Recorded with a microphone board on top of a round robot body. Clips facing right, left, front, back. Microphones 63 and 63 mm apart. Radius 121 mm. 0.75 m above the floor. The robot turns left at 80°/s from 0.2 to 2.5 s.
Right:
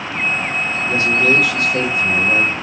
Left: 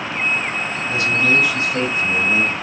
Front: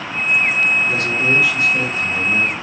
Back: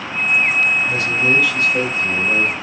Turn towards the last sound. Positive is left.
turn(degrees=-160)